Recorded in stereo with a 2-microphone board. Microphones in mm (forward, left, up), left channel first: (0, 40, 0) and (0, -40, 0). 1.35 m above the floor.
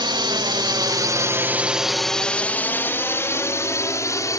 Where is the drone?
75° right (ahead or behind); by 4.4 s 45° left (ahead or behind).